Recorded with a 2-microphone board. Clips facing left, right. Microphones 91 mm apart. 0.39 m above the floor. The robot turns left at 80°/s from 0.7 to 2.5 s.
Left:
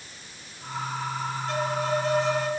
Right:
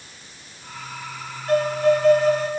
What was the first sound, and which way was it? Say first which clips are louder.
A violin: right 10 dB; 60° right.